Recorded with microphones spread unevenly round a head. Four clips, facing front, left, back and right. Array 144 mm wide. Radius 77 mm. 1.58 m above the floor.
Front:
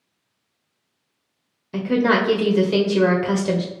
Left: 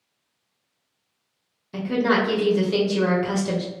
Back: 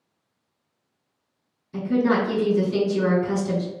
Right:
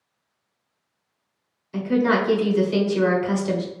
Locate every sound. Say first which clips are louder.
1.7 s a woman speaking: right 1 dB, front 2 dB; 10° left, 1.1 m